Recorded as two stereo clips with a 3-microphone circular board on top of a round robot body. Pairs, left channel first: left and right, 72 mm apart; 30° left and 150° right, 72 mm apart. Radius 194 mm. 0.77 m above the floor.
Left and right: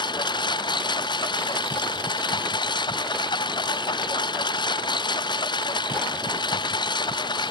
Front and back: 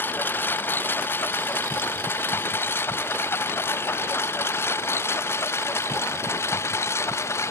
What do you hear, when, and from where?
0.0 s a lawn mower: 95° left; by 7.5 s 85° left